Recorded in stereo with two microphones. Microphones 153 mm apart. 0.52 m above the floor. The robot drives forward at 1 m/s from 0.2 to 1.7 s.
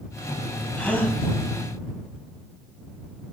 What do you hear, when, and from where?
0.8 s a gasp: 10° left (ahead or behind), 1.4 m; by 1.2 s 15° left (ahead or behind), 1.0 m